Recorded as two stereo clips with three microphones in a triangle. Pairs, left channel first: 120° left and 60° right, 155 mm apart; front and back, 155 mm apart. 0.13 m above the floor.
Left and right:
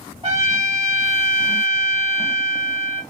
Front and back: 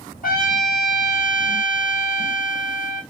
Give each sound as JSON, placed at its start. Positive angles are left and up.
{"t": 0.2, "sound": "a trumpet", "azimuth_deg": -5, "distance_m": 2.0}